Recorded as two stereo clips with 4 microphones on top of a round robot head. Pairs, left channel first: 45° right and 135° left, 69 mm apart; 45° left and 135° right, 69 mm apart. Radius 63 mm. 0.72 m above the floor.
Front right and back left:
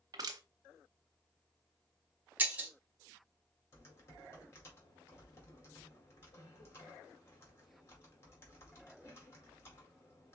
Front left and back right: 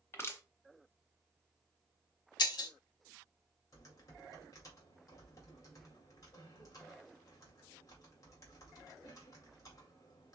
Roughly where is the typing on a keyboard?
Ahead.